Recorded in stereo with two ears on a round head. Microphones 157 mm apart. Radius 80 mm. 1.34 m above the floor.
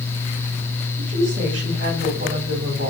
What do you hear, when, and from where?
1.0 s a woman speaking: 45° right (ahead or behind), 7.5 m